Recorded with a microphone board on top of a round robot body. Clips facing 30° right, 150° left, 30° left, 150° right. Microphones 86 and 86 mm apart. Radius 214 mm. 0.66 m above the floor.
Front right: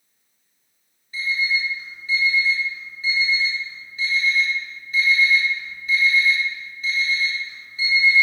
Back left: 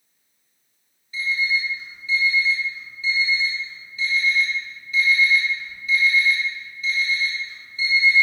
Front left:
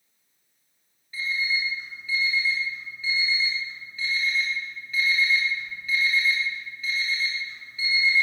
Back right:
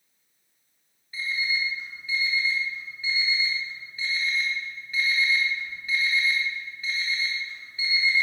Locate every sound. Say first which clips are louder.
1.1 s an alarm clock: even, front left 1 dB; 75° right, 2.5 m